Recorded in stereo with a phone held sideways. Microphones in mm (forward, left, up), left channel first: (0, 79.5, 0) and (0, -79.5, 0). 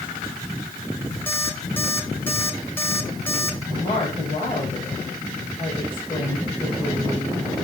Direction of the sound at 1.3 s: 15° left (ahead or behind).